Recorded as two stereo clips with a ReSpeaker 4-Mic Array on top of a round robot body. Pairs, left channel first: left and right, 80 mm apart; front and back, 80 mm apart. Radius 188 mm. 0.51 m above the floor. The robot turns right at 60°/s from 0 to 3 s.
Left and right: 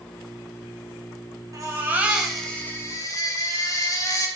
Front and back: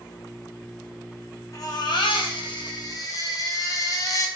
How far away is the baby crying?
About 3 m.